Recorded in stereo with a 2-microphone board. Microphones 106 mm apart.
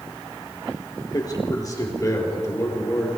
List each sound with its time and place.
1.1 s a man speaking: 40° left (ahead or behind), 3.5 m; by 3.1 s 25° left (ahead or behind), 3.5 m